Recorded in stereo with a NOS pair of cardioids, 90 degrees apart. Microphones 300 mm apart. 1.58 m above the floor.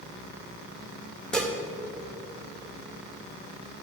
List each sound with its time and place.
1.3 s dishes clattering: 5° left, 1.8 m